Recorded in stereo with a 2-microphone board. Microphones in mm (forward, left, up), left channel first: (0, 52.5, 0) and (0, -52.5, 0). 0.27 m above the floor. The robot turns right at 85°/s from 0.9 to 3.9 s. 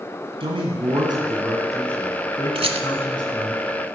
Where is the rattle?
60° right (ahead or behind), 0.8 m; by 2.9 s 80° right, 0.8 m.